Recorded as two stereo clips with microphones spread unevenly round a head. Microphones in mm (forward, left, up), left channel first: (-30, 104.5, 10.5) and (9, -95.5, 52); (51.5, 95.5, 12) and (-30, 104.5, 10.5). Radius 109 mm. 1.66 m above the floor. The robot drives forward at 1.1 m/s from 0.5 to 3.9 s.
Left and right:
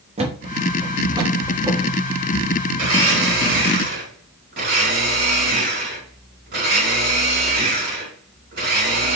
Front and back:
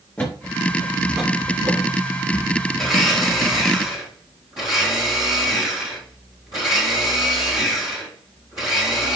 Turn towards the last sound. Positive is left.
turn(degrees=-115)